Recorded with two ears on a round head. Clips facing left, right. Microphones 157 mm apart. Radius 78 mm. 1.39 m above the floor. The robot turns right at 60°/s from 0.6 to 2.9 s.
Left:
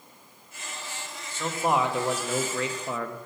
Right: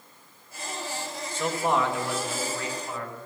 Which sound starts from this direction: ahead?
A man speaking, at 1.3 s.